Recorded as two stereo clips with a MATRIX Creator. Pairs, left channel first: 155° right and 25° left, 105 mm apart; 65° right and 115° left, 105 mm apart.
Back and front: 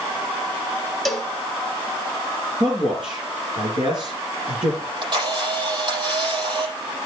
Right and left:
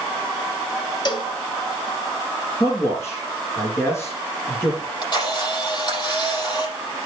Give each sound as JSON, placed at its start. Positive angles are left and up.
{"t": 1.1, "sound": "a cowbell", "azimuth_deg": -70, "distance_m": 0.9}
{"t": 2.6, "sound": "a man speaking", "azimuth_deg": -5, "distance_m": 3.5}
{"t": 4.8, "sound": "a camera shutter", "azimuth_deg": -20, "distance_m": 7.0}